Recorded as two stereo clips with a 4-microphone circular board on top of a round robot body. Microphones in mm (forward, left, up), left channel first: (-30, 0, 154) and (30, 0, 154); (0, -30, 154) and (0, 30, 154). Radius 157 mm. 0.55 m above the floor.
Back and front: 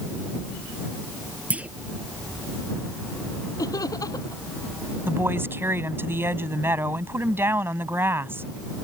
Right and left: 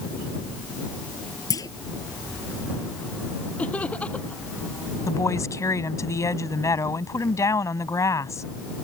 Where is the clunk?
70° right.